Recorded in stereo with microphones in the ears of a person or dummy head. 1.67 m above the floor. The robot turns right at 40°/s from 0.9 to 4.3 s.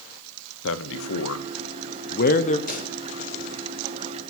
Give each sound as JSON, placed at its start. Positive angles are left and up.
{"t": 0.6, "sound": "a man speaking", "side_deg": 75, "distance_m": 1.1}
{"t": 2.7, "sound": "a pop", "side_deg": 45, "distance_m": 3.5}